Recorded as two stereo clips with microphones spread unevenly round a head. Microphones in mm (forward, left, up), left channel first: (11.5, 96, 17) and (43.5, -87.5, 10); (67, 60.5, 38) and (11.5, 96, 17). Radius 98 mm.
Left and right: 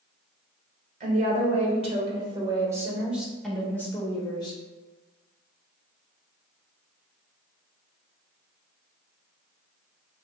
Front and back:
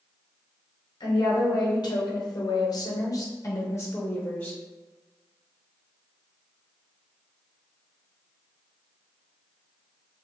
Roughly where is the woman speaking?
Ahead right.